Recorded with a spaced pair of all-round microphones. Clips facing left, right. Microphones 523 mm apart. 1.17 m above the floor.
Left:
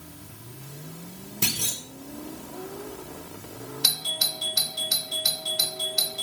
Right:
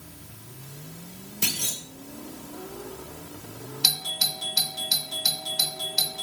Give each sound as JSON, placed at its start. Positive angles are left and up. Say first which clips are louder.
{"t": 1.4, "sound": "a clunk", "louder": "left 2 dB", "side_deg": 70, "distance_m": 1.7}
{"t": 3.8, "sound": "a doorbell", "louder": "even", "side_deg": -15, "distance_m": 1.2}